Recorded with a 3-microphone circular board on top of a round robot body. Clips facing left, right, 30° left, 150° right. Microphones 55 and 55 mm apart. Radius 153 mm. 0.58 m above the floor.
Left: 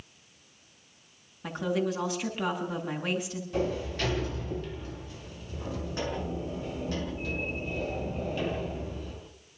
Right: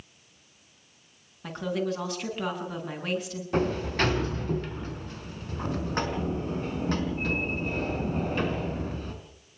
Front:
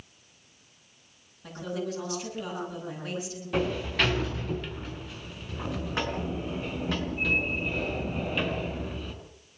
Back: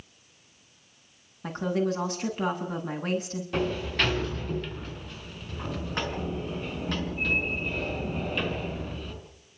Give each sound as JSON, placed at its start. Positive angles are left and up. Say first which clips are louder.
{"t": 1.4, "sound": "a woman speaking", "louder": "even, back 6 dB", "azimuth_deg": 175, "distance_m": 9.0}
{"t": 3.5, "sound": "a sliding door", "louder": "right 4 dB, front 1 dB", "azimuth_deg": -55, "distance_m": 4.5}